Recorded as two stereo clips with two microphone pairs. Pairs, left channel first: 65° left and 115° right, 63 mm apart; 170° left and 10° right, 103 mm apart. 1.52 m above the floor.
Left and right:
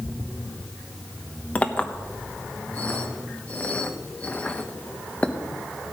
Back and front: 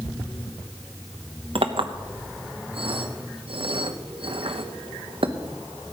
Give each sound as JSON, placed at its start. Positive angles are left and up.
{"t": 1.6, "sound": "a clink", "azimuth_deg": -5, "distance_m": 1.0}